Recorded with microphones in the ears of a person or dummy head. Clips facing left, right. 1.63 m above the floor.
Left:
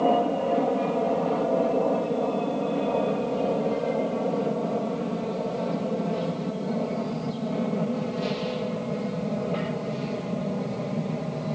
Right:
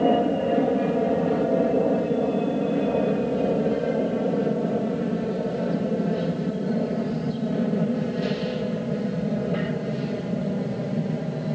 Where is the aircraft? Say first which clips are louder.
Right 2 dB; 20° right (ahead or behind); by 11.6 s 10° right (ahead or behind).